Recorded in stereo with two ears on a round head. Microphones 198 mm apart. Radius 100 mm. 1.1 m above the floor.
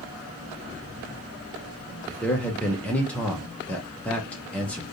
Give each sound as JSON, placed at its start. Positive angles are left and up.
{"t": 2.1, "sound": "a man speaking", "side_deg": 5, "distance_m": 0.8}